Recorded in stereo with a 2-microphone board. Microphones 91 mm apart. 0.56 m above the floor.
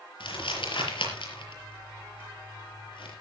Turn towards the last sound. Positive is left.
turn(degrees=75)  # may be behind; listen again after turning